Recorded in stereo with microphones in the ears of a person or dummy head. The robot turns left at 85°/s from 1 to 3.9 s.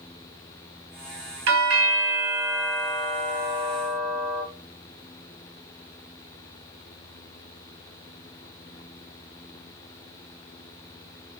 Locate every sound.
1.5 s a doorbell: 75° right, 2 m; by 4.4 s 75° left, 2 m